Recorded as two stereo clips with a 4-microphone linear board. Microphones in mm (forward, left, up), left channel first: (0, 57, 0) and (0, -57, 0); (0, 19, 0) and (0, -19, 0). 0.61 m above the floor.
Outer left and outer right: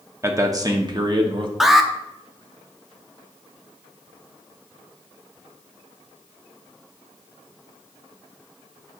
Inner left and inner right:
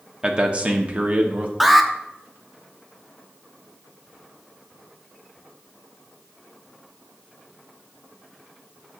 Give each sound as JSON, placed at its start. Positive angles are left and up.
{"t": 0.2, "sound": "a man speaking", "side_deg": -25, "distance_m": 0.9}
{"t": 1.6, "sound": "an alarm", "side_deg": -5, "distance_m": 0.6}